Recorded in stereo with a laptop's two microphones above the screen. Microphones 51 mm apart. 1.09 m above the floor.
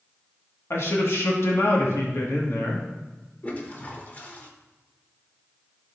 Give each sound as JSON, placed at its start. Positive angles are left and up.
{"t": 0.7, "sound": "a man speaking", "side_deg": 55, "distance_m": 1.3}
{"t": 3.4, "sound": "a toilet flushing", "side_deg": 30, "distance_m": 1.0}